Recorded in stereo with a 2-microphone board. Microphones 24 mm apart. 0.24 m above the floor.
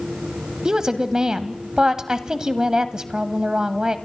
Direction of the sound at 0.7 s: 30° right (ahead or behind).